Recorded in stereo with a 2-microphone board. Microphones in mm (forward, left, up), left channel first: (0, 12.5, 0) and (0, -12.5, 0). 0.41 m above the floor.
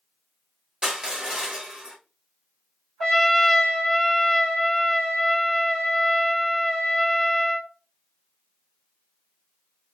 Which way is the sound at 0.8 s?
30° right (ahead or behind).